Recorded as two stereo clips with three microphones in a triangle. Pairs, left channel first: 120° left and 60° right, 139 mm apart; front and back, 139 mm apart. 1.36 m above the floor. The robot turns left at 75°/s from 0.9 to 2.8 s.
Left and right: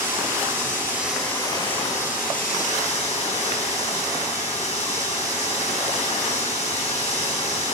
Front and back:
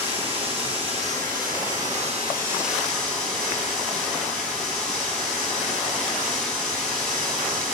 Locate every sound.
0.0 s running water: 135° right, 4.5 m; by 7.7 s 85° left, 4.5 m